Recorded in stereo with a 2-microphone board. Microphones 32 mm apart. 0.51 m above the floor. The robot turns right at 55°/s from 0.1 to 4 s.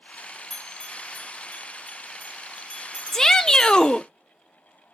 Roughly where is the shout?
Centre.